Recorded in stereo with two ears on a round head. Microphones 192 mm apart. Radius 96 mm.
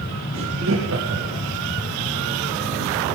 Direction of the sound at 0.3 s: 65° right (ahead or behind).